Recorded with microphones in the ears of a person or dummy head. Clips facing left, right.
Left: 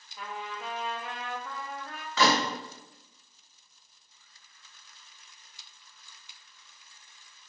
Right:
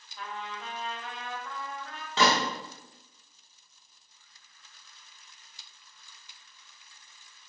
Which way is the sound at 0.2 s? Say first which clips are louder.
Left 1 dB; 5° left (ahead or behind).